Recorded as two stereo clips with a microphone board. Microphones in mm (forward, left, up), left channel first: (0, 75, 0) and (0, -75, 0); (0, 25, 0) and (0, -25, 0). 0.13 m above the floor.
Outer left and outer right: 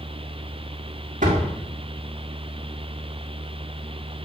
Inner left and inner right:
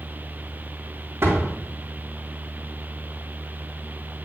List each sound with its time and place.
1.2 s a door slam: 60° right (ahead or behind), 4 m